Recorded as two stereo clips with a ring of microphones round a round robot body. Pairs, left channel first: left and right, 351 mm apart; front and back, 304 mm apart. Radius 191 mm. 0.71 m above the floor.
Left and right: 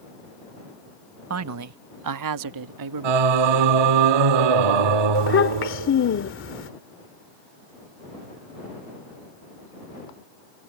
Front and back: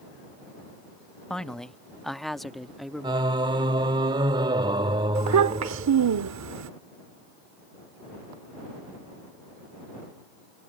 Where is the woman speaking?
85° right; by 3.3 s 90° right.